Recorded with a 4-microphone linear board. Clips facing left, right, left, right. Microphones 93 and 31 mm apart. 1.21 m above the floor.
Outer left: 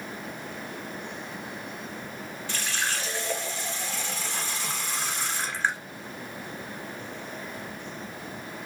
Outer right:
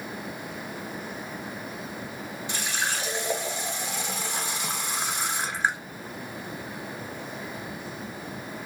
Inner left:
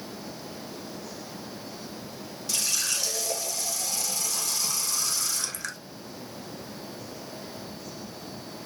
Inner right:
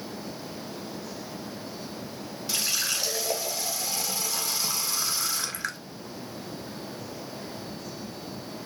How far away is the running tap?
About 1.0 m.